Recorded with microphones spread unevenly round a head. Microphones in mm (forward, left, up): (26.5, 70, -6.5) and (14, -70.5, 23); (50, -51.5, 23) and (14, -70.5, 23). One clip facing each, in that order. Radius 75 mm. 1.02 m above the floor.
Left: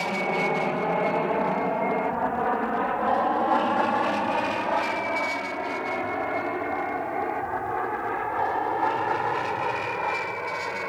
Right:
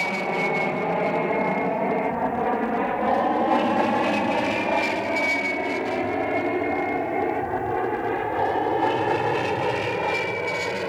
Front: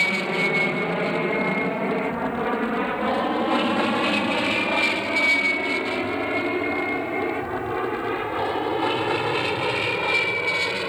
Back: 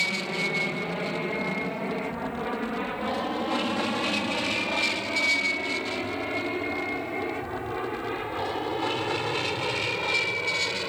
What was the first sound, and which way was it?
An aircraft, 5° right.